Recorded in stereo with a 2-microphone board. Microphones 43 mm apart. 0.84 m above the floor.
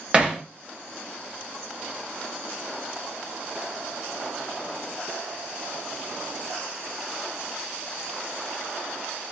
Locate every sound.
0.1 s hammering: 25° right (ahead or behind), 0.7 m